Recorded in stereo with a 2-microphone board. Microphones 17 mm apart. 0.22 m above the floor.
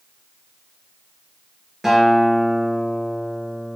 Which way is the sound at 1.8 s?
25° right (ahead or behind).